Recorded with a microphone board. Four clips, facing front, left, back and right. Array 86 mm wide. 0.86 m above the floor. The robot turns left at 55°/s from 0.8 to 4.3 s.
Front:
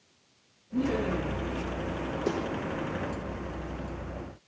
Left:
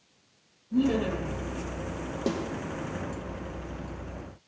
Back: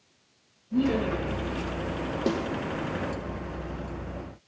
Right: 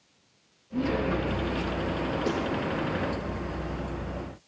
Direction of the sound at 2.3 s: 140° left.